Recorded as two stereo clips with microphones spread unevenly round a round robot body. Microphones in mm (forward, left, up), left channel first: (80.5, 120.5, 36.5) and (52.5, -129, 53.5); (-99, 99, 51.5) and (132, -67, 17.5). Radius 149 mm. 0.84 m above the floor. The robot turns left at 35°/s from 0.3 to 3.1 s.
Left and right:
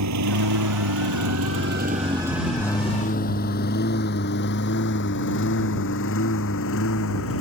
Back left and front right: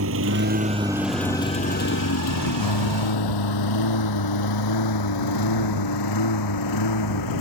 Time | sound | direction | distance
0.0 | a lawn mower | 85° right | ?